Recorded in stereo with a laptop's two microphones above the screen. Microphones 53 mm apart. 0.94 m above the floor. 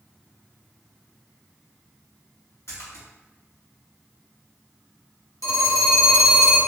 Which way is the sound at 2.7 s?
65° left (ahead or behind).